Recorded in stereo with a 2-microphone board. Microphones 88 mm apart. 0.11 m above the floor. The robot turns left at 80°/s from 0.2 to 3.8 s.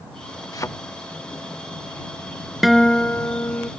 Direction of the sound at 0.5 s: 45° left (ahead or behind).